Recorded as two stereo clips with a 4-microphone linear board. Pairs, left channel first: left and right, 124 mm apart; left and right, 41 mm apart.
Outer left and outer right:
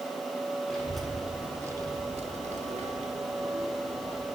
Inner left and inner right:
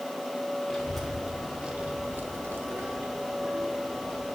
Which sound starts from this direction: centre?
A child speaking, at 0.7 s.